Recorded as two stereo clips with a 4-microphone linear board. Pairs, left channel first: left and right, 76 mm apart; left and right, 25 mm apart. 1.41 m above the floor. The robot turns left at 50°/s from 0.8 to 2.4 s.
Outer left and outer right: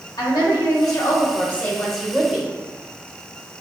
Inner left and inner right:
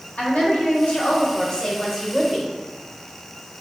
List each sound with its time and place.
0.2 s a woman speaking: 60° left, 1.6 m; by 2.5 s 20° right, 1.6 m